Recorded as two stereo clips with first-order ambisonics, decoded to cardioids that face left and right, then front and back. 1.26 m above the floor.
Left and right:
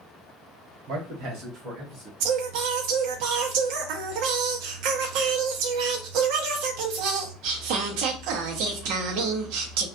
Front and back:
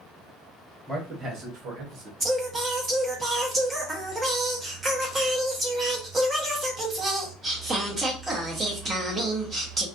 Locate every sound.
0.9 s a man speaking: 100° right, 1.3 m; by 2.1 s 150° right, 1.2 m
2.2 s singing: 105° right, 0.7 m